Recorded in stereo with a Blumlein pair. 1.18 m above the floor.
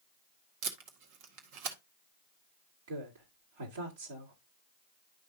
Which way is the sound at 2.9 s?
60° right.